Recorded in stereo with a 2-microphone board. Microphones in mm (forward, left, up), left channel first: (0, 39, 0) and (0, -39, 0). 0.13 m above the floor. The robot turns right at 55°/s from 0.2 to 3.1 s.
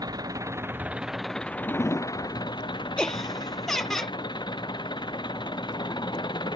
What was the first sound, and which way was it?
An engine running, 55° right.